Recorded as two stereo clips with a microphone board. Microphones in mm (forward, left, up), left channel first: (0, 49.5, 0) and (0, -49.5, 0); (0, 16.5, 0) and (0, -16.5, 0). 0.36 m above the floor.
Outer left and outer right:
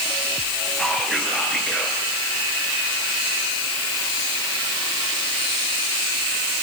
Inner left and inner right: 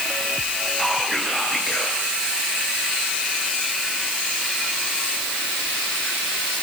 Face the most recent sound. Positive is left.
turn(degrees=5)  # may be behind; listen again after turning